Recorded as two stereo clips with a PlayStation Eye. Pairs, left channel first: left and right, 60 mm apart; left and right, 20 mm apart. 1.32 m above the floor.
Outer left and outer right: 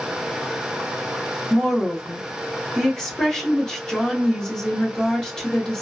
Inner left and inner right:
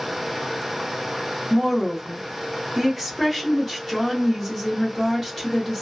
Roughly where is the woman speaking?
Centre.